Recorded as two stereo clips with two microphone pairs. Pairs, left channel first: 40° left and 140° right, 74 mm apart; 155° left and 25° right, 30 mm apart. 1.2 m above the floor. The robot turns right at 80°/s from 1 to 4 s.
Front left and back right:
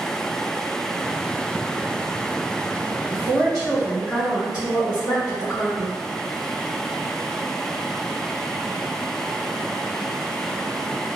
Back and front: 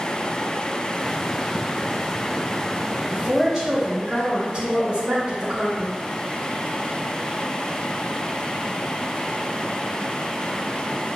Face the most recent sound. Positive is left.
turn(degrees=-55)